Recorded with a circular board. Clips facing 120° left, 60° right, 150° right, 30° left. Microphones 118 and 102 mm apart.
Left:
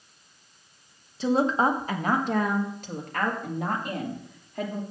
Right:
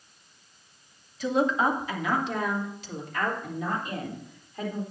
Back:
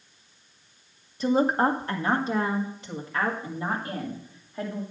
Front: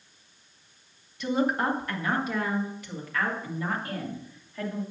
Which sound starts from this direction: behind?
A woman speaking, at 1.2 s.